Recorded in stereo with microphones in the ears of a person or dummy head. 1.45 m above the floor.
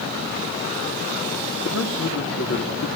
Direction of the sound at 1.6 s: 85° left.